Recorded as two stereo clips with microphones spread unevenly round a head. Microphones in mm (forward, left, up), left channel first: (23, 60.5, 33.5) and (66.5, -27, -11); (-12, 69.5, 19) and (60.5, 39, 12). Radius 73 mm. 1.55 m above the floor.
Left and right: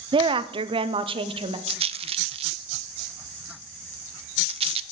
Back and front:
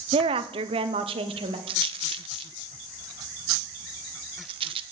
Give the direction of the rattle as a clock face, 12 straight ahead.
1 o'clock.